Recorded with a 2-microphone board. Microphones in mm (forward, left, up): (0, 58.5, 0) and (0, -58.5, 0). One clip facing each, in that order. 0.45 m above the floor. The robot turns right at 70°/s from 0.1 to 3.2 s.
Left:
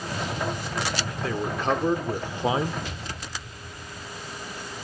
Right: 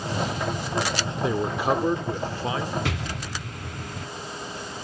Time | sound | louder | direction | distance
1.2 | a man speaking | right 3 dB | 45° right | 0.9 m
2.9 | an explosion | right 6 dB | 80° right | 1.0 m